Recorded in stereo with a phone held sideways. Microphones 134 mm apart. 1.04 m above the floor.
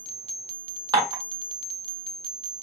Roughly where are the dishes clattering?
Right.